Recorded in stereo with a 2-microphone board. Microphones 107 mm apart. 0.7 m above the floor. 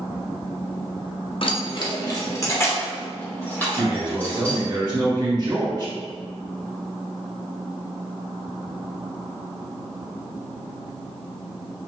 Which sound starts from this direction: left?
Keys jangling, at 1.4 s.